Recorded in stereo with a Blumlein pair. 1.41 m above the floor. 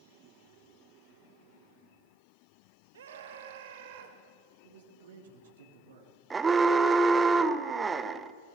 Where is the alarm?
15° right, 0.9 m.